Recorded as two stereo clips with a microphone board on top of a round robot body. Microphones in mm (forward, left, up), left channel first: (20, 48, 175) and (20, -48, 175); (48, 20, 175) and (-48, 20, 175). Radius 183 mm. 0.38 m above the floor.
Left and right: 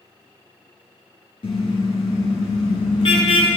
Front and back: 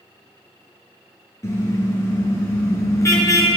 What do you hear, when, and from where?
1.4 s a car horn: 60° left, 5 m